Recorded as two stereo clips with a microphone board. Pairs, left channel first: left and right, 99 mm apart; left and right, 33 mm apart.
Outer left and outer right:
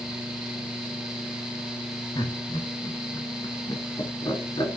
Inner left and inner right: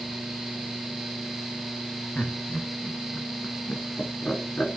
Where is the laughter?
50° left (ahead or behind), 1.8 m.